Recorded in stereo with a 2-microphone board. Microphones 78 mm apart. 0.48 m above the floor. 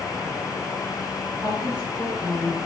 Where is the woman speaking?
65° right (ahead or behind), 7 m.